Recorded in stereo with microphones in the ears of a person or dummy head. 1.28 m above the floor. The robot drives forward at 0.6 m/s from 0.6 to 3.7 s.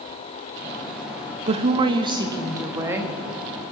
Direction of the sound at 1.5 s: 40° right (ahead or behind).